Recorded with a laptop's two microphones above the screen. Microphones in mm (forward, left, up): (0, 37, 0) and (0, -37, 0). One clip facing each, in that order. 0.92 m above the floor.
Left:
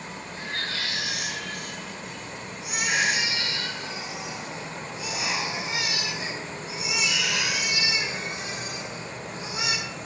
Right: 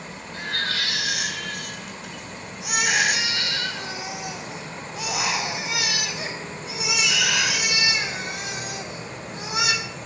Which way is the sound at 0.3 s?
75° right (ahead or behind).